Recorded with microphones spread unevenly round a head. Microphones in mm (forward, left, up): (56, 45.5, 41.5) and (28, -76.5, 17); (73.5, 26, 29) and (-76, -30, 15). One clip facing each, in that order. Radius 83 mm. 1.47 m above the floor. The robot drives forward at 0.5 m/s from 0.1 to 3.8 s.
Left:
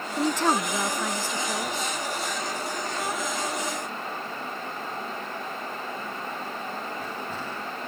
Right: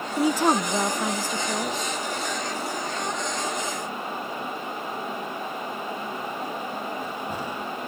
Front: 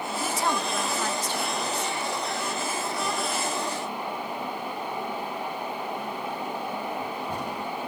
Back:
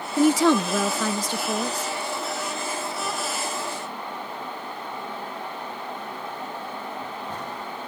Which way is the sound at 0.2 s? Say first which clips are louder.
Right 3 dB, back 12 dB; 170° left.